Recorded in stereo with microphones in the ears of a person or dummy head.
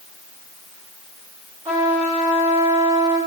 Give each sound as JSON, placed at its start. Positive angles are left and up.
{"t": 1.6, "sound": "a trumpet", "side_deg": -30, "distance_m": 1.6}